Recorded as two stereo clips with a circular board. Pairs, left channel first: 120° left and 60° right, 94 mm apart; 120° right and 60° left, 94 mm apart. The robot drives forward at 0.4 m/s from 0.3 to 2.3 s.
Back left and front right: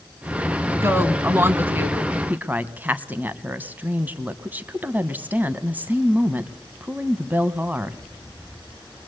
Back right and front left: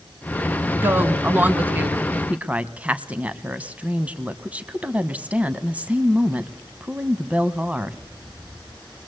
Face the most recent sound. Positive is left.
turn(degrees=-5)